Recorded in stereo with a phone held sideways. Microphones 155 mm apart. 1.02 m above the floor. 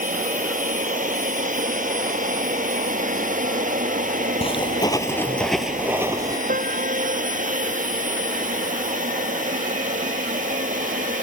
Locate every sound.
0.0 s a machine running: 60° right (ahead or behind)
4.4 s footsteps: 40° left (ahead or behind); by 6.4 s 25° right (ahead or behind)
6.5 s a piano: 60° right (ahead or behind)